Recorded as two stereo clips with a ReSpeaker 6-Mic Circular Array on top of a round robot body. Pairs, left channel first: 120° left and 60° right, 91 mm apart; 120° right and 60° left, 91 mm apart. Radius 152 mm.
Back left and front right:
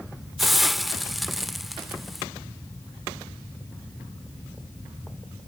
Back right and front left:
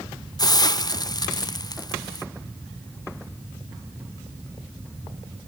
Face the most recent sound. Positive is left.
turn(degrees=-150)